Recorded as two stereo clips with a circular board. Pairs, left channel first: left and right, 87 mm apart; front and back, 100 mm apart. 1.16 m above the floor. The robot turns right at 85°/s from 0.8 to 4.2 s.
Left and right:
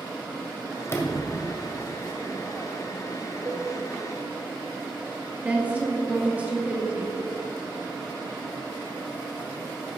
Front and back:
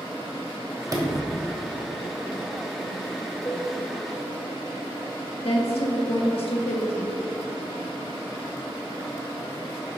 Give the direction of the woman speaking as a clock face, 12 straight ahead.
1 o'clock.